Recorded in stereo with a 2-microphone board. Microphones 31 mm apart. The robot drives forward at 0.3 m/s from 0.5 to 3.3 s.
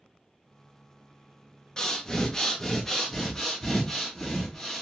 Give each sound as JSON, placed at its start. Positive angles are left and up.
{"t": 1.8, "sound": "breathing", "side_deg": 20, "distance_m": 0.5}